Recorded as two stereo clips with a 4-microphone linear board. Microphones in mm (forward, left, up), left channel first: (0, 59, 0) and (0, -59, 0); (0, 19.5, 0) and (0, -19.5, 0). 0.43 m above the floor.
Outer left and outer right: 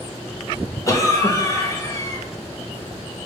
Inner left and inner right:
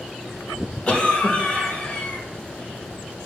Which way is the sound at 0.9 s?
30° left (ahead or behind).